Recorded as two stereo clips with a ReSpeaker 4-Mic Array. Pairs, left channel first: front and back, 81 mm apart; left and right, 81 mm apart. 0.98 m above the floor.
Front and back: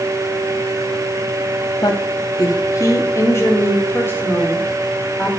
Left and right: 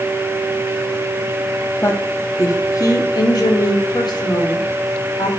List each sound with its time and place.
1.8 s a woman speaking: 35° left, 1.8 m; by 5.3 s 70° left, 3.5 m